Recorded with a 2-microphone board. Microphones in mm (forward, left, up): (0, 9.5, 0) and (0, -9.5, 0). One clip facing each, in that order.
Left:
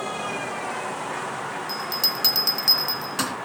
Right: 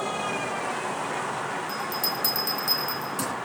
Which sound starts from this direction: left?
A bell, at 1.7 s.